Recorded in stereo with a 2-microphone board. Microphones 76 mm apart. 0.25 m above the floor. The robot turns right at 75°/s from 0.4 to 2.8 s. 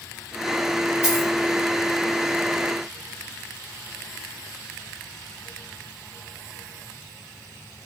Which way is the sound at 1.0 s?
15° right (ahead or behind).